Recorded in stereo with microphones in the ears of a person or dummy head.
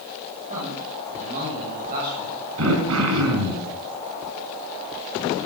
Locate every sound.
0.5 s a man speaking: 40° right (ahead or behind), 7 m; by 3.6 s 50° right (ahead or behind), 10.5 m
2.6 s throat clearing: 75° right (ahead or behind), 4.5 m